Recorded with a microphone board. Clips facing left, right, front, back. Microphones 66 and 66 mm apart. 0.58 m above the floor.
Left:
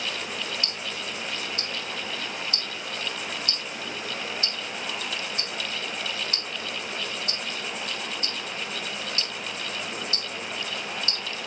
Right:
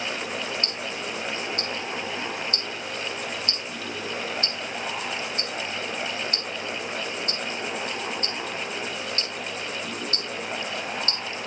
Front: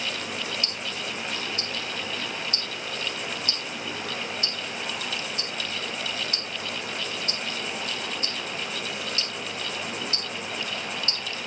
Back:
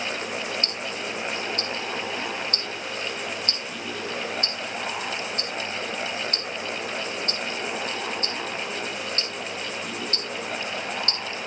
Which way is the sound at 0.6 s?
135° right.